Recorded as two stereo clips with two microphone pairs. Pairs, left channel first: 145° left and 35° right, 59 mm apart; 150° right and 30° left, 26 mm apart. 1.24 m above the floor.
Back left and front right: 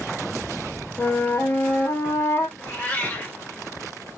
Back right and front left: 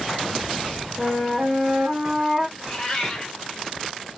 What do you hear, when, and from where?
1.0 s a flute: 115° left, 1.2 m
2.6 s a cat meowing: 165° left, 1.4 m